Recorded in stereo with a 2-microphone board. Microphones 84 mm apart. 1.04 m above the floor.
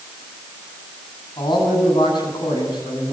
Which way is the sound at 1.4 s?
70° left (ahead or behind).